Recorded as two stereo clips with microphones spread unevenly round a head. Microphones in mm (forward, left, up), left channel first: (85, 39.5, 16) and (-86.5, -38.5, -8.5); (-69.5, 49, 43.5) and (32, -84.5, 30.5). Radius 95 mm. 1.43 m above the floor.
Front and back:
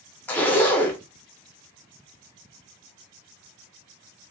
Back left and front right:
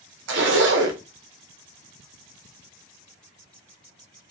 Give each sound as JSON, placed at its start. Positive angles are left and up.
{"t": 0.3, "sound": "a zipper", "azimuth_deg": -50, "distance_m": 0.5}